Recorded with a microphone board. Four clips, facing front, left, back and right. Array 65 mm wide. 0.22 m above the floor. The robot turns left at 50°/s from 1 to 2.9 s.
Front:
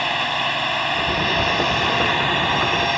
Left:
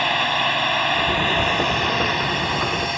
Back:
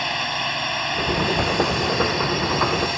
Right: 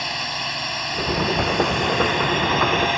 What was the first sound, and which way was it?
A drone, 65° left.